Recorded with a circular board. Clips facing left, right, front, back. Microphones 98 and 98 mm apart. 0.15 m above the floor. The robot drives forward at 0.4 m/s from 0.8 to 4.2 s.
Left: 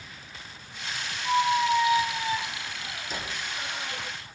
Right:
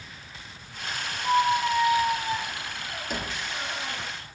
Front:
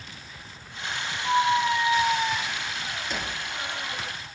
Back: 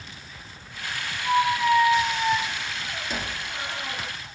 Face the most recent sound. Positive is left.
turn(degrees=-130)